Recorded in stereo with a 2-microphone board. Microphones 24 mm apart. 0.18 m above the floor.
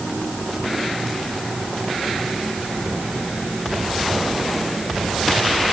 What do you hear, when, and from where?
Only background noise.